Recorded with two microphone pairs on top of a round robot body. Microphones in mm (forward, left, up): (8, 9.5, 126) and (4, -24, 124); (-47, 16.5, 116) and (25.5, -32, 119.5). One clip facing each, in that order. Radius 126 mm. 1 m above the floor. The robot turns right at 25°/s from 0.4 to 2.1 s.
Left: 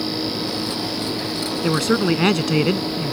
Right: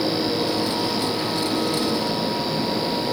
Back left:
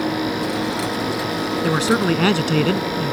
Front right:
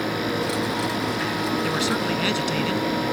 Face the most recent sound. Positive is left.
turn(degrees=100)